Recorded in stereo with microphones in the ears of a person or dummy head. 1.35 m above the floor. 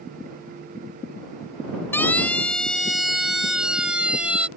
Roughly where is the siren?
Centre.